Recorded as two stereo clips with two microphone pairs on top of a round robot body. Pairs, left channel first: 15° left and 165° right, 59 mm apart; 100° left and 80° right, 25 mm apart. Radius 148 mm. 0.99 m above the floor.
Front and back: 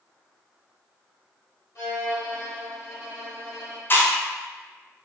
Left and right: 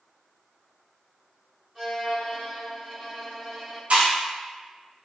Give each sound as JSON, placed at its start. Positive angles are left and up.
{"t": 1.8, "sound": "a violin", "azimuth_deg": 0, "distance_m": 1.7}
{"t": 3.9, "sound": "chewing", "azimuth_deg": -40, "distance_m": 0.5}